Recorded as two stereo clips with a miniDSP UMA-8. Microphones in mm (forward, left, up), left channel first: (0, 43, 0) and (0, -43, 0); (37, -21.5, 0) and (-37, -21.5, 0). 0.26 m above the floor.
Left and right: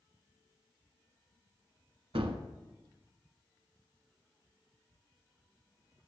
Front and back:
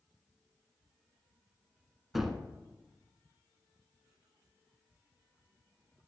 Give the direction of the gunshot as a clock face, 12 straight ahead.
3 o'clock.